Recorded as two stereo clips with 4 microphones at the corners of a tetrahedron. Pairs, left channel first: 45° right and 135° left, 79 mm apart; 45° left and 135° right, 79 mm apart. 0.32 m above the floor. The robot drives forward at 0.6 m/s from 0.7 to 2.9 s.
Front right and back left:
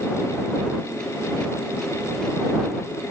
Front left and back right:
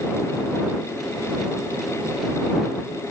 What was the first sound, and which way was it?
Only background noise.